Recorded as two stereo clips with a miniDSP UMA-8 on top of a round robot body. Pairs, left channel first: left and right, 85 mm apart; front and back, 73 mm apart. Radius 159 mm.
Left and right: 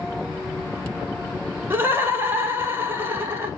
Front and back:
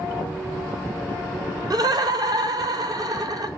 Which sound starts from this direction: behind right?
Laughter, at 1.7 s.